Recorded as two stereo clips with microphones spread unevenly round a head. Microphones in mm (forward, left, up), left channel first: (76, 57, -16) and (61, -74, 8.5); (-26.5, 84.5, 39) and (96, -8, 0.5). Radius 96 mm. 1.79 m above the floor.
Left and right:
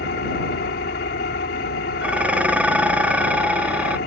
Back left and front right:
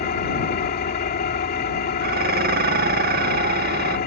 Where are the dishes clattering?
35° right.